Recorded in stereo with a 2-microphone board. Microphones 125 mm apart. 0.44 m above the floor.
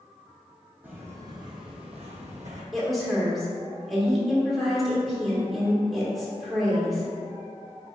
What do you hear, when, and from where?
0.8 s footsteps: 15° right (ahead or behind), 0.9 m; by 2.6 s 70° right (ahead or behind), 1.0 m
2.7 s a woman speaking: centre (ahead or behind), 1.1 m